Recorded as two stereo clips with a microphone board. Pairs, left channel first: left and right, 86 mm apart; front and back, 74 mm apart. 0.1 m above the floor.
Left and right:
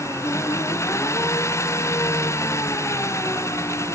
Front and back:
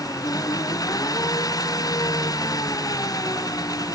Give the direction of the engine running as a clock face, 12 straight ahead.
11 o'clock.